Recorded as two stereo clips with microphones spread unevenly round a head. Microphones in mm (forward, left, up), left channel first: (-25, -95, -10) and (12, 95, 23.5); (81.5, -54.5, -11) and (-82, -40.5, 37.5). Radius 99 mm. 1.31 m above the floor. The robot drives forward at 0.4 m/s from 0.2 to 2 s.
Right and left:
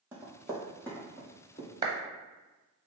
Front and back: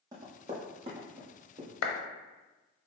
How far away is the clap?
About 0.7 m.